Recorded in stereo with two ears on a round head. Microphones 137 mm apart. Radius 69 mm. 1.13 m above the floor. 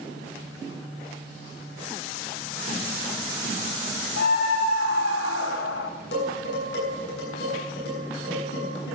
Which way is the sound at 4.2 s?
90° left.